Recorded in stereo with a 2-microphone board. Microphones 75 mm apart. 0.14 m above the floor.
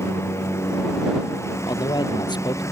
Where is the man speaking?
70° left (ahead or behind).